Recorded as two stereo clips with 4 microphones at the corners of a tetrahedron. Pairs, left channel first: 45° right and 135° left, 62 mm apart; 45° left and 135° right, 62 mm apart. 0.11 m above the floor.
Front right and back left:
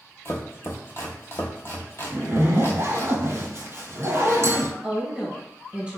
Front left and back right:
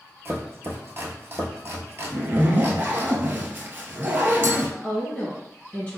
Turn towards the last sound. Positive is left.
turn(degrees=90)